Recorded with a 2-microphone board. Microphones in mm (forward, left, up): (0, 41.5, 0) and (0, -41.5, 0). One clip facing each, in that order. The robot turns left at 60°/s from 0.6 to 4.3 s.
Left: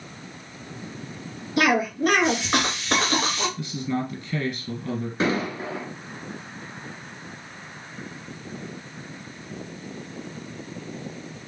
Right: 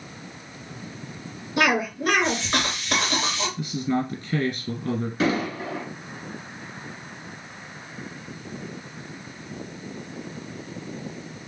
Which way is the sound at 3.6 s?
20° right.